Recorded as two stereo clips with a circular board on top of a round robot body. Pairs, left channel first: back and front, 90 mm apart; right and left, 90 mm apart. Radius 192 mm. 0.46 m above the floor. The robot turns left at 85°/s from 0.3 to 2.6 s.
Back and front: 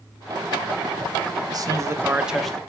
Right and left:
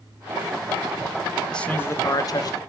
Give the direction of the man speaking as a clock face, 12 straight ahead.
12 o'clock.